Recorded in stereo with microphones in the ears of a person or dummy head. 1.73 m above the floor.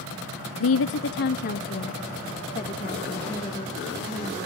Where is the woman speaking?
70° left (ahead or behind), 0.7 m; by 4.4 s 20° left (ahead or behind), 2.5 m.